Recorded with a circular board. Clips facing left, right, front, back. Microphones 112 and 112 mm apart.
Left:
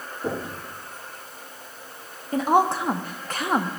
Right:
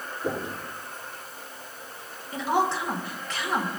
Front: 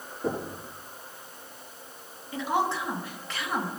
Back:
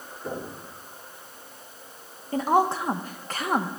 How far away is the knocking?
About 7.5 m.